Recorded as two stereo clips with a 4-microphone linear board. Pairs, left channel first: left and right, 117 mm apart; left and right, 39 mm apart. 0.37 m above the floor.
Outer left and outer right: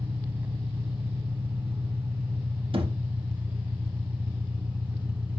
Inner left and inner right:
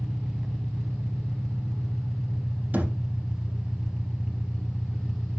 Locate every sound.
0.0 s an engine running: 20° right (ahead or behind), 0.9 m
2.7 s a thud: 50° right (ahead or behind), 4 m